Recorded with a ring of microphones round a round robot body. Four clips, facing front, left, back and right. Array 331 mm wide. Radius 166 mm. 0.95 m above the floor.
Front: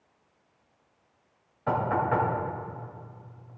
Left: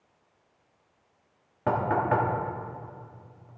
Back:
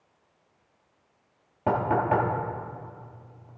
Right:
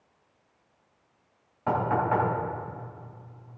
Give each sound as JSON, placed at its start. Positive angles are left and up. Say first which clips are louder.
{"t": 1.7, "sound": "knocking", "louder": "even, back 2 dB", "azimuth_deg": 150, "distance_m": 2.0}